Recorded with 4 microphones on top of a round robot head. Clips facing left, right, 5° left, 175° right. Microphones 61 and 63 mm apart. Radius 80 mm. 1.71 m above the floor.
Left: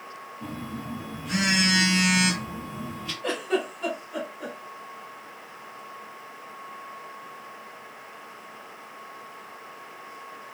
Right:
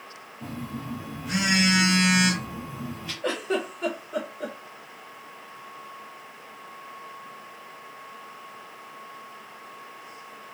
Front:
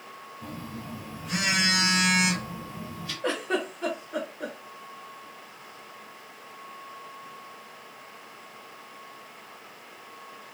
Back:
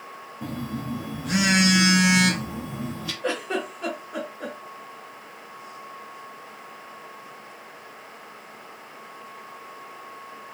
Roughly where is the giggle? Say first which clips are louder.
Even, even; right.